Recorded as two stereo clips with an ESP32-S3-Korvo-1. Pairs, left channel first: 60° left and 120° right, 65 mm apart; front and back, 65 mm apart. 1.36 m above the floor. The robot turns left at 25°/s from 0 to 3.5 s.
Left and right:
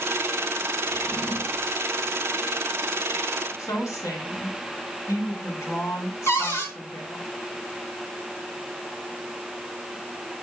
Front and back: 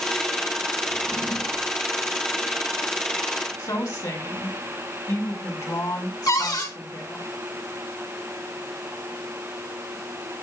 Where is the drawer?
100° left, 3 m; by 1.8 s 80° left, 3 m.